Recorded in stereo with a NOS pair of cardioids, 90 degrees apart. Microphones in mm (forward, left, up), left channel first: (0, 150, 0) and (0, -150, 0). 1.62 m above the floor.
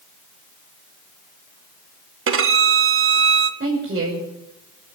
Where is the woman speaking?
35° right, 6.5 m.